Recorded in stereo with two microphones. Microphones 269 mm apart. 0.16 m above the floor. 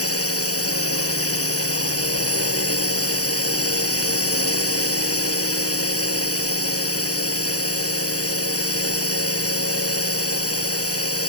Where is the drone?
60° left (ahead or behind).